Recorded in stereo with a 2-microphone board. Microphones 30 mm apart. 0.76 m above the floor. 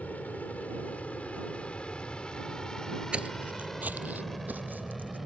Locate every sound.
0.0 s an aircraft: 60° left (ahead or behind); by 5.3 s centre (ahead or behind)
3.1 s footsteps: 40° right (ahead or behind); by 5.2 s 75° right (ahead or behind)